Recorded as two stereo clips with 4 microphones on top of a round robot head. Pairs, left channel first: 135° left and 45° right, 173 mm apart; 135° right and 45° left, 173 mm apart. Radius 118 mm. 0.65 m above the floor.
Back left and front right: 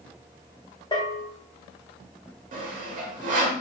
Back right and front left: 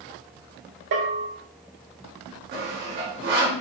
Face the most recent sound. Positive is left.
turn(degrees=5)